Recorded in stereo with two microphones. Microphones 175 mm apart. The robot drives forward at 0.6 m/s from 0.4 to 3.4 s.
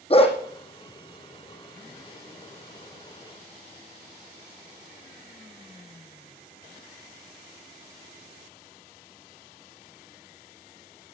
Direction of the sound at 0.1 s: 35° left (ahead or behind).